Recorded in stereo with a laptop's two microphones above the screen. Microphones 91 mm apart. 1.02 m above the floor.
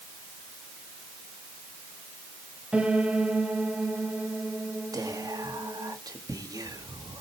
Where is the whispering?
45° right (ahead or behind), 1.7 m.